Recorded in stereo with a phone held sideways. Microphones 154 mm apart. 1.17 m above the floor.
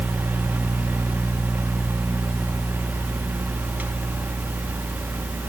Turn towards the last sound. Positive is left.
turn(degrees=-10)  # may be behind; listen again after turning